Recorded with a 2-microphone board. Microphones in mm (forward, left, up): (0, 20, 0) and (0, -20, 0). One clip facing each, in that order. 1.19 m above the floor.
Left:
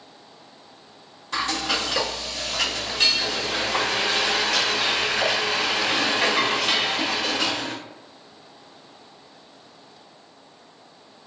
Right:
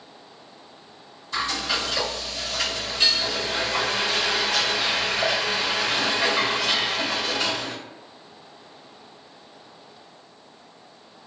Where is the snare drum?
No snare drum in this recording.